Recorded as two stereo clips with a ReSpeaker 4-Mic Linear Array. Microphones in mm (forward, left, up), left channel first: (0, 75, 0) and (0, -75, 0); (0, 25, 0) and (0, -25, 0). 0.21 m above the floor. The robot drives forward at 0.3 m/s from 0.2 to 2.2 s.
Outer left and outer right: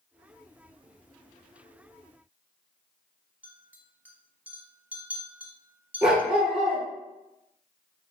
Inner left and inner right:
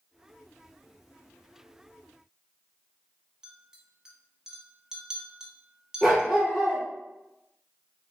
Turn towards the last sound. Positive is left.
turn(degrees=-5)  # may be behind; listen again after turning